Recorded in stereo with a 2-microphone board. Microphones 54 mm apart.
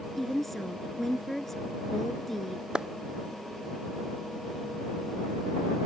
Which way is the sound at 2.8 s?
15° right (ahead or behind).